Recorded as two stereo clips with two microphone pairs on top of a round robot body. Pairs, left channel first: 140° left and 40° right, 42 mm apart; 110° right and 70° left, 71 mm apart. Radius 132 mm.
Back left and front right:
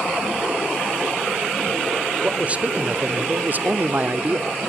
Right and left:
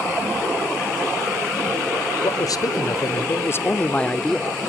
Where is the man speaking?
95° right, 1.7 m; by 4.5 s 15° right, 1.1 m.